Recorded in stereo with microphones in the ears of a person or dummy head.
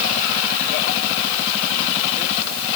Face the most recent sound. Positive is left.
No sound to turn to.